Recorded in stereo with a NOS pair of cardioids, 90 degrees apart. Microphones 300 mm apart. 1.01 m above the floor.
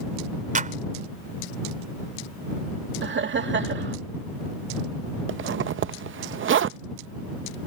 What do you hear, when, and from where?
0.6 s a clap: 25° right
3.0 s laughter: 40° right
5.3 s a zipper: 45° right